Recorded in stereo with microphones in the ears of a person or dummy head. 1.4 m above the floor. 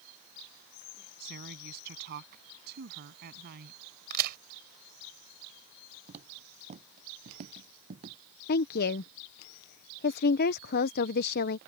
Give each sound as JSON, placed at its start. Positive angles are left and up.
{"t": 1.2, "sound": "a woman speaking", "side_deg": -55}
{"t": 4.1, "sound": "a crack", "side_deg": -55}
{"t": 6.1, "sound": "footsteps", "side_deg": -40}
{"t": 8.5, "sound": "a woman speaking", "side_deg": 55}